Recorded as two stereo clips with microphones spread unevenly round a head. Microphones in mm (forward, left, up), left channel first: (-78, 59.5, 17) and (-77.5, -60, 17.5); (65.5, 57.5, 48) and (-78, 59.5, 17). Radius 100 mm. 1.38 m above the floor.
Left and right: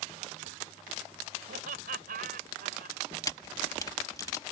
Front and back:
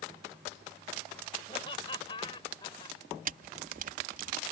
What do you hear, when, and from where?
1.5 s laughter: 65° right; by 3.0 s 70° right
3.2 s a camera shutter: 150° left